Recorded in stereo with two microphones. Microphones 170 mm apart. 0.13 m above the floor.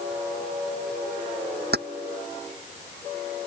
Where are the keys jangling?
75° right (ahead or behind).